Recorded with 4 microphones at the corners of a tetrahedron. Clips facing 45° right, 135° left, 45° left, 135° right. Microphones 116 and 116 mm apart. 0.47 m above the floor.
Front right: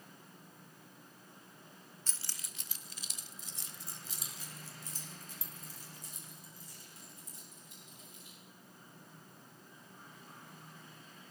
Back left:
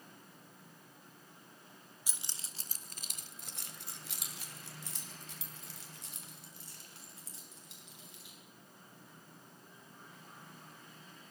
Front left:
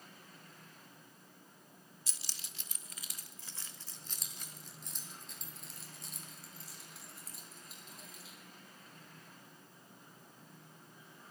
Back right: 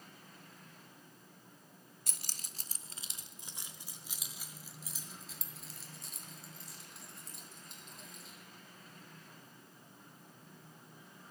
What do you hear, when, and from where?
2.1 s keys jangling: 150° right, 0.7 m; by 8.3 s 130° left, 4 m